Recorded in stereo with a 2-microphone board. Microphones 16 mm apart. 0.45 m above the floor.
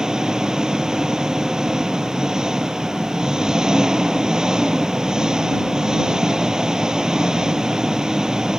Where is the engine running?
50° right (ahead or behind).